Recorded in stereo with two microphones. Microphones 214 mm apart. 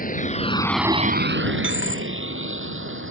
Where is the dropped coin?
80° left.